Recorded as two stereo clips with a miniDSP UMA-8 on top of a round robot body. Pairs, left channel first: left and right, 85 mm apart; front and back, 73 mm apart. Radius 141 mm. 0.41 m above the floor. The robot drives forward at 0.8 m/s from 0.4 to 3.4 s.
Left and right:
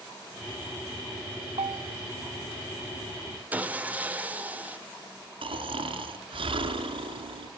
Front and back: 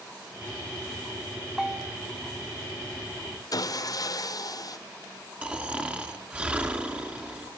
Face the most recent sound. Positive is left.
turn(degrees=-105)